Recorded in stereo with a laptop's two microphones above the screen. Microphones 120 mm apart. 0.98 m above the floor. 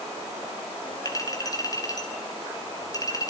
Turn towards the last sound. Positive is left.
turn(degrees=30)  # may be behind; listen again after turning